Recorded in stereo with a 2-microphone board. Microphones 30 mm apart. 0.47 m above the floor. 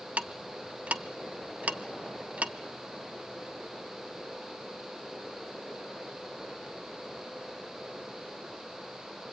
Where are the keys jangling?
I don't hear keys jangling.